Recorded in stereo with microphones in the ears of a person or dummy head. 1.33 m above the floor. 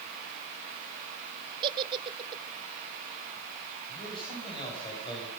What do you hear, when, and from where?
1.6 s a giggle: 25° right (ahead or behind), 0.9 m
3.9 s a man speaking: 25° left (ahead or behind), 8.5 m